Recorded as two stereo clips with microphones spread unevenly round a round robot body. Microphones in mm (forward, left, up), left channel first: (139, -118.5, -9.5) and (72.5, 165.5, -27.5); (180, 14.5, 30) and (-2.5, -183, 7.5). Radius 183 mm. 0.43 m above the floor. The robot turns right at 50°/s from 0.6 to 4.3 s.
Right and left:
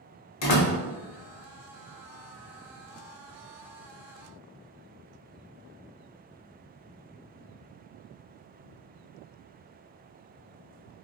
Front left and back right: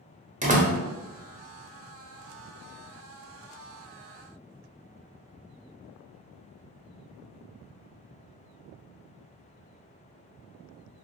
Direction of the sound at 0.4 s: 75° right.